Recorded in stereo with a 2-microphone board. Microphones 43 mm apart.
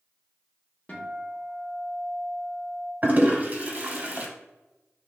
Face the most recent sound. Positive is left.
turn(degrees=-40)  # may be behind; listen again after turning